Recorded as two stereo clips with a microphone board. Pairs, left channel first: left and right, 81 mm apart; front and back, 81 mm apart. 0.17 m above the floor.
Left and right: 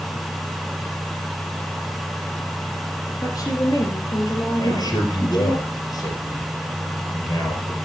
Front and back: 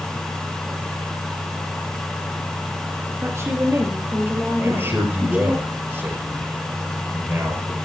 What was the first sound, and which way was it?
A woman speaking, 125° left.